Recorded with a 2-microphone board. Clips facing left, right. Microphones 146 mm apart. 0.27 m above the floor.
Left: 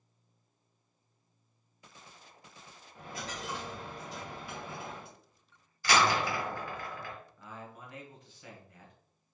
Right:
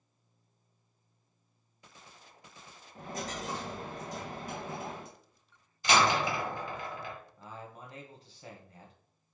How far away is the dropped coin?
About 1.2 m.